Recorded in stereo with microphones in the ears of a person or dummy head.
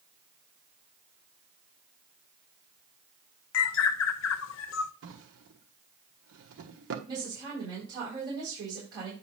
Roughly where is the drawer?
Right.